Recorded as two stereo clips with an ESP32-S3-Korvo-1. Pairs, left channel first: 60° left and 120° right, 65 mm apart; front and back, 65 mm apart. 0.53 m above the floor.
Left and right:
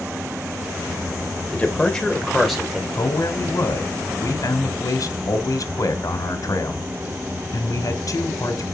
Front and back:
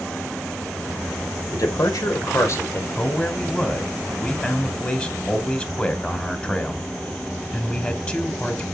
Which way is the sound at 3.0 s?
65° left.